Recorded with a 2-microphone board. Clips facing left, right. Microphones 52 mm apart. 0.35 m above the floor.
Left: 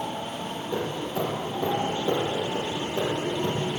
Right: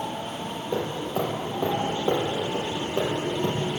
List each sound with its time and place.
0.7 s hammering: 40° right (ahead or behind), 7 m